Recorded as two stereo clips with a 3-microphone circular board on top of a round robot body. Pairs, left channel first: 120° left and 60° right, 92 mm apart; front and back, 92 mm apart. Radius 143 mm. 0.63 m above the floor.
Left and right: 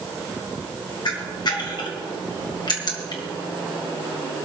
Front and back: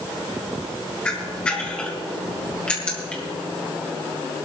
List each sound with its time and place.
1.1 s a camera shutter: 80° left, 1.9 m